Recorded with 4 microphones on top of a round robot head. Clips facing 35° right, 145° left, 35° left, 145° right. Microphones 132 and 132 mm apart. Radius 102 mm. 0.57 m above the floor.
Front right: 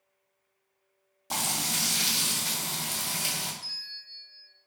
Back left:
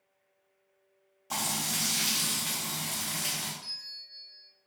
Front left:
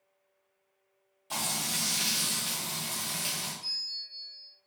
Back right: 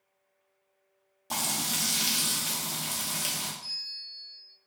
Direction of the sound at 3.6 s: 55° right.